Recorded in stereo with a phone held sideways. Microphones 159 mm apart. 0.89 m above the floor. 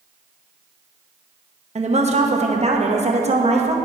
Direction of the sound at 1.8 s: 45° right (ahead or behind).